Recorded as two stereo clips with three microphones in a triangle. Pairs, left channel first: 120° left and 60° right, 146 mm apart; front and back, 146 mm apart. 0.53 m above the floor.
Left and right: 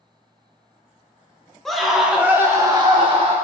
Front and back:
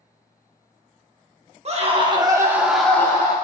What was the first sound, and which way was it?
A scream, 150° right.